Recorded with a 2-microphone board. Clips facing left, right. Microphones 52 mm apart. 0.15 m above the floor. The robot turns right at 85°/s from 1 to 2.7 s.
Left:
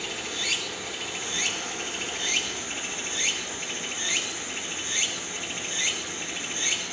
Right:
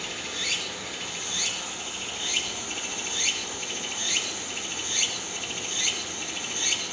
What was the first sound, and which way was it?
Running water, 5° left.